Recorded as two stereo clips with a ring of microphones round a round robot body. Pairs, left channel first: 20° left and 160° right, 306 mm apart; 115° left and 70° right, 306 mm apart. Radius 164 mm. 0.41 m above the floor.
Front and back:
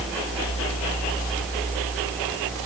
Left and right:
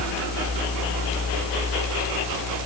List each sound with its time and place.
Only background noise.